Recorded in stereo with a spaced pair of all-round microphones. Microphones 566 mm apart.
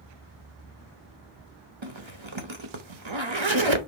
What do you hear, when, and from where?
1.8 s a zipper: 55° right (ahead or behind), 1.1 m